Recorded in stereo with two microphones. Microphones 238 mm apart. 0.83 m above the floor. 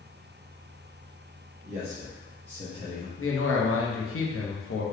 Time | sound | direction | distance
1.6 | a man speaking | 35° right (ahead or behind) | 1.2 m
3.2 | a man speaking | 60° left (ahead or behind) | 0.8 m